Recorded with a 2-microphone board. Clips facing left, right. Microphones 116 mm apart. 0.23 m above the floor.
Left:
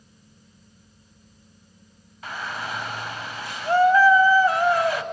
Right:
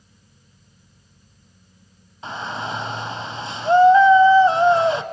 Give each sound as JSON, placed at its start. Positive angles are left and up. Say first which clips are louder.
{"t": 2.2, "sound": "a shout", "louder": "right 3 dB", "side_deg": -25, "distance_m": 1.0}